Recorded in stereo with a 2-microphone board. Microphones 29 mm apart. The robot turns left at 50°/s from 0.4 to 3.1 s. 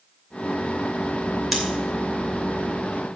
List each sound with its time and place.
1.5 s scissors: 5° right (ahead or behind), 2.5 m; by 1.6 s centre (ahead or behind), 2.5 m